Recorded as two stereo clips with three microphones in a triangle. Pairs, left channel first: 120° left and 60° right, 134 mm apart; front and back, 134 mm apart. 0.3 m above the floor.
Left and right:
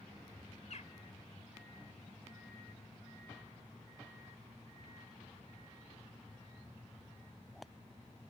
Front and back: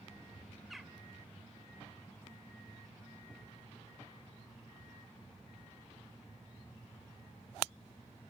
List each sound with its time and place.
0.7 s a bird: 90° left, 1.0 m